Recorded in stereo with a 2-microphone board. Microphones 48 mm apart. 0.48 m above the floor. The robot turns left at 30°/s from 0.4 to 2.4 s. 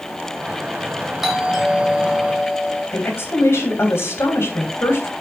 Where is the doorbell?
175° right, 3.5 m; by 2.8 s 150° left, 3.5 m.